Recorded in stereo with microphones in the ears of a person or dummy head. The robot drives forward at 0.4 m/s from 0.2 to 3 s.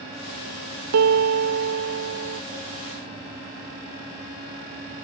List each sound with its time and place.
0.9 s a piano: 85° right; by 2.4 s 75° right (ahead or behind)